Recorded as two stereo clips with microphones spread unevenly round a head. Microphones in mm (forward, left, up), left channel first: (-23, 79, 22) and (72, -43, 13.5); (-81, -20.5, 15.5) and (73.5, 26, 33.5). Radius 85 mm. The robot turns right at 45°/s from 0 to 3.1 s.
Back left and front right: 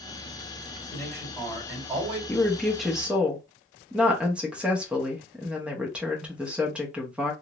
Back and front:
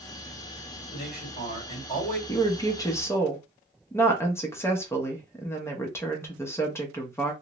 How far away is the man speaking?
About 1.8 m.